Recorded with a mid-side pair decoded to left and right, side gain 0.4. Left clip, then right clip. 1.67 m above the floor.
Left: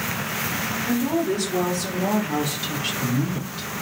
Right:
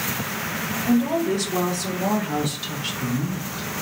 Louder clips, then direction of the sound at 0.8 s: Right 3 dB; 65° right.